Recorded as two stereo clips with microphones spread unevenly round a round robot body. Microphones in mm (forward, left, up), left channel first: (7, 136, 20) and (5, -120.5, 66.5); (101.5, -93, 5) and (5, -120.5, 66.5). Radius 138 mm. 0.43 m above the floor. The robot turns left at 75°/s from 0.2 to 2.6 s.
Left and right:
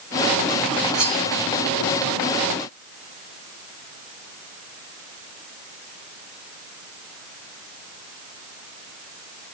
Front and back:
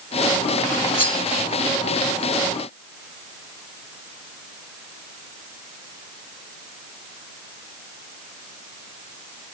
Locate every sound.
0.9 s cutlery clinking: straight ahead, 3 m; by 1.2 s 20° right, 3 m